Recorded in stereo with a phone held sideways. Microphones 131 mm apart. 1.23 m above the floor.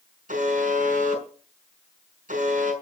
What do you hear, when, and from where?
0.3 s a buzzer: 80° right, 5.5 m